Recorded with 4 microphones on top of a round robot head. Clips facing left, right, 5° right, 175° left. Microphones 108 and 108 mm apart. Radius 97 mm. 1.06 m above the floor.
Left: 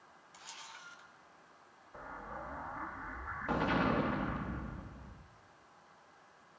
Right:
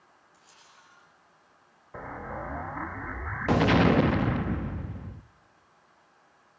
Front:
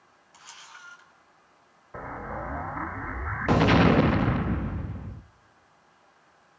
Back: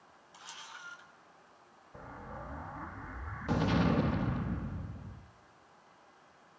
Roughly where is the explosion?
Ahead right.